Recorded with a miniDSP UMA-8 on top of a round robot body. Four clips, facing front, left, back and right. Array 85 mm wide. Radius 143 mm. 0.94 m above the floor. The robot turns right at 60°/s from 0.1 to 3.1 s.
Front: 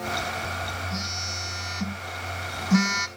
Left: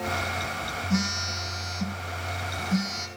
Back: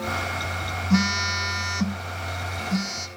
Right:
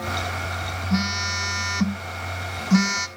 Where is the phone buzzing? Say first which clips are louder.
Right 5 dB, back 11 dB; 170° right, 0.6 m; by 3.1 s 40° right, 0.6 m.